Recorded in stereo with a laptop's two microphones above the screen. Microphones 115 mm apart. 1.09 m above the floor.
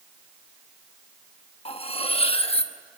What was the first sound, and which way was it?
Cutlery clinking, 55° left (ahead or behind).